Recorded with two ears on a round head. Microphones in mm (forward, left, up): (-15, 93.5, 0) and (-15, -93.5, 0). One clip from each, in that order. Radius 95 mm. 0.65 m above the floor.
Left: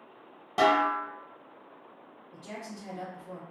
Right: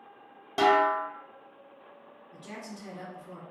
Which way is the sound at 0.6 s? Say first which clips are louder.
Right 1 dB; 5° right (ahead or behind).